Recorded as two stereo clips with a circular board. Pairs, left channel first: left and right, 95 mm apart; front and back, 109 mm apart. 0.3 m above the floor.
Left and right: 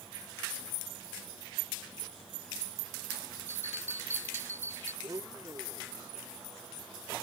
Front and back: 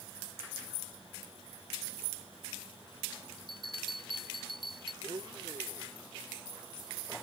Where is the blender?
140° right.